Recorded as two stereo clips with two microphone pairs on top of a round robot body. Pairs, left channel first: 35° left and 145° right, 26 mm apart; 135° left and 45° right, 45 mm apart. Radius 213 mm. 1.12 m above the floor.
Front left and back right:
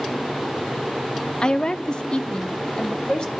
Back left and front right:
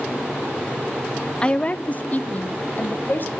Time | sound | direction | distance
1.4 | a woman speaking | 75° left | 0.7 m